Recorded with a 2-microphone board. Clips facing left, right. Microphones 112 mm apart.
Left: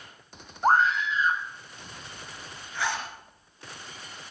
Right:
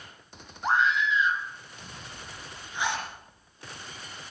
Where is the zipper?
20° right (ahead or behind), 3.5 m.